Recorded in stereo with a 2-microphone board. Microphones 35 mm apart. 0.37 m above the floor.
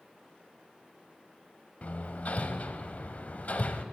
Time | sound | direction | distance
1.8 | hammering | 40° left (ahead or behind) | 0.7 m